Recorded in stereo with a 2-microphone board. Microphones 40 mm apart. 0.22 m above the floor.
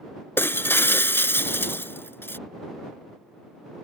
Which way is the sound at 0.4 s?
75° left (ahead or behind).